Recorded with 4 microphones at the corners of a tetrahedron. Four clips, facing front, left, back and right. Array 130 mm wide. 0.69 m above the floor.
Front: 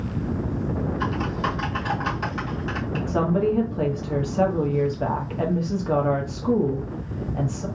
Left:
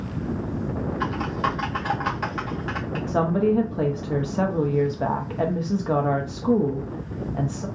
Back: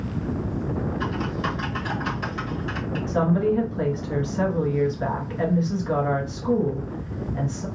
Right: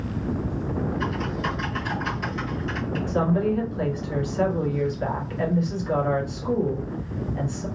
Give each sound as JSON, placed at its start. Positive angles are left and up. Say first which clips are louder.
{"t": 1.0, "sound": "typing on a keyboard", "louder": "left 2 dB, front 1 dB", "azimuth_deg": 60, "distance_m": 1.9}
{"t": 3.1, "sound": "a woman speaking", "louder": "left 3 dB, even", "azimuth_deg": 55, "distance_m": 1.0}